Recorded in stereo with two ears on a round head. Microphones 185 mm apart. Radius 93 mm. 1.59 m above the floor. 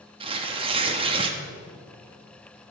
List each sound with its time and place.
0.2 s tearing paper: 25° right (ahead or behind), 1.1 m